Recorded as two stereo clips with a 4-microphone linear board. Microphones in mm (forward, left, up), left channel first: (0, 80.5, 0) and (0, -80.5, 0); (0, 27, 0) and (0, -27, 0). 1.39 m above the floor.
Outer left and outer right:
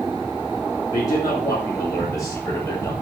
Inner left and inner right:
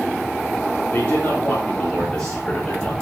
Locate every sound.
0.9 s a man speaking: 20° left (ahead or behind), 3 m; by 2.9 s 15° left (ahead or behind), 1.6 m